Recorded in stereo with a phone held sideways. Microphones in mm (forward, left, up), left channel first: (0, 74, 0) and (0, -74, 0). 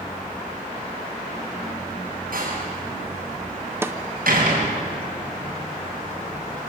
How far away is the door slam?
About 6.5 m.